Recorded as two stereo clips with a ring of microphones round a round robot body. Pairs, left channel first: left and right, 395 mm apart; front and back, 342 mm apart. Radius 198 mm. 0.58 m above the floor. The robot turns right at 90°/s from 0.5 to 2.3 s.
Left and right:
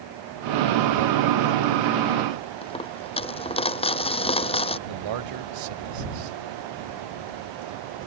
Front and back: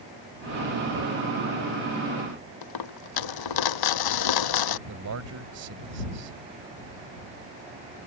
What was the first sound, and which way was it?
A dropped coin, 15° left.